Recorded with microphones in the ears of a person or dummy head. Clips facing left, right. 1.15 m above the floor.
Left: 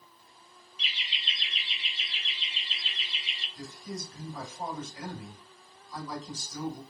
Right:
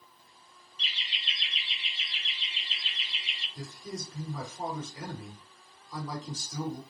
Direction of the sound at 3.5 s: 80° right.